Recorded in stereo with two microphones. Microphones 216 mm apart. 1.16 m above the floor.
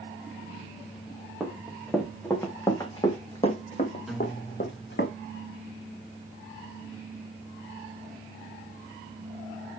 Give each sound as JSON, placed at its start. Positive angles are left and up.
{"t": 1.4, "sound": "running footsteps", "side_deg": -5, "distance_m": 3.5}
{"t": 4.1, "sound": "a guitar", "side_deg": 0, "distance_m": 0.5}